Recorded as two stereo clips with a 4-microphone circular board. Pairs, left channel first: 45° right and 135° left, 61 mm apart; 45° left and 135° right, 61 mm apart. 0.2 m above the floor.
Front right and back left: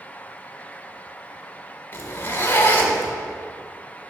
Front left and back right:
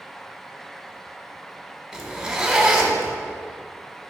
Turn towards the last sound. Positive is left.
turn(degrees=-65)